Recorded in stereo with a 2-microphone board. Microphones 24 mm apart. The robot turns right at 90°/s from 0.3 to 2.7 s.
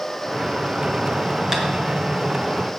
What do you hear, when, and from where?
1.5 s tapping: 20° right (ahead or behind), 1.8 m; by 1.6 s 10° right (ahead or behind), 1.8 m